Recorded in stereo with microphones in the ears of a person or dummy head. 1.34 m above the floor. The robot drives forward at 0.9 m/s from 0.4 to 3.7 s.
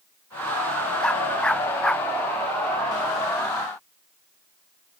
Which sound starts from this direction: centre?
A dog barking, at 1.0 s.